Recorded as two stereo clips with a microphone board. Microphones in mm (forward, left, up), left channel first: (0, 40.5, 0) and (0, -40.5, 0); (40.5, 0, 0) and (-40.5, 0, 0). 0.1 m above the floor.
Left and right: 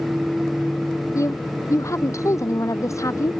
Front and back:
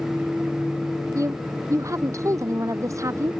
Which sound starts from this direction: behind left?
A woman speaking, at 1.1 s.